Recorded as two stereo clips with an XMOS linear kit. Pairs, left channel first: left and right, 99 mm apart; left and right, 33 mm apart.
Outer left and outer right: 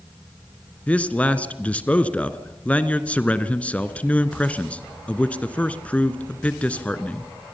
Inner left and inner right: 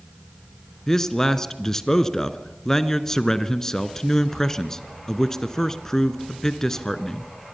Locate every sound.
0.9 s a man speaking: 15° left (ahead or behind), 1.4 m